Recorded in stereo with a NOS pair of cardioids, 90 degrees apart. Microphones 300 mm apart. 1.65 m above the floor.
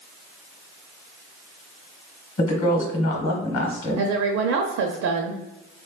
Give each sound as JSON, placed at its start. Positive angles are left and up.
{"t": 2.4, "sound": "a woman speaking", "azimuth_deg": 35, "distance_m": 1.1}
{"t": 4.0, "sound": "a woman speaking", "azimuth_deg": -55, "distance_m": 0.5}